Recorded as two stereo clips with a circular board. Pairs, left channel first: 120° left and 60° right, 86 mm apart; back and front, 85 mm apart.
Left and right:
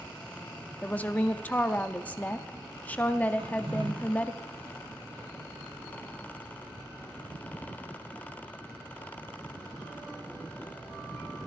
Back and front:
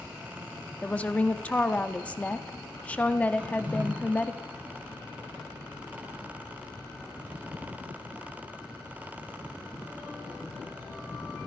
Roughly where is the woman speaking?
Behind left.